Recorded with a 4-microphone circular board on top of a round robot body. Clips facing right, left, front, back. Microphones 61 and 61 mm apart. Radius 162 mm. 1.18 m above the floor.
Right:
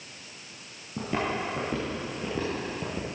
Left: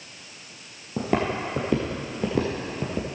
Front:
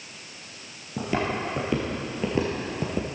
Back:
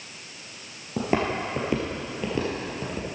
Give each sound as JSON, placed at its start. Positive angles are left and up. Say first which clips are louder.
{"t": 1.0, "sound": "footsteps", "louder": "left 4 dB, back 2 dB", "azimuth_deg": 130, "distance_m": 1.4}